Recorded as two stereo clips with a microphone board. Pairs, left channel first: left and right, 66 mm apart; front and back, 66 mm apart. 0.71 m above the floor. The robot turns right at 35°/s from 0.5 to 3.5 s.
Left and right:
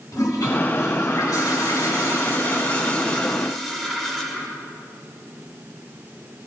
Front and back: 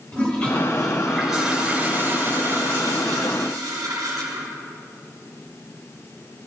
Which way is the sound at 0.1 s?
70° left.